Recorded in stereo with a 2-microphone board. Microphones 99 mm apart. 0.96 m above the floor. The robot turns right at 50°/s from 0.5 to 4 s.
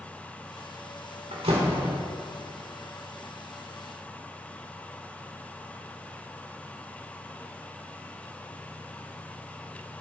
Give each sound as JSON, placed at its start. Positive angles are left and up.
{"t": 1.3, "sound": "a door slam", "azimuth_deg": -100, "distance_m": 2.0}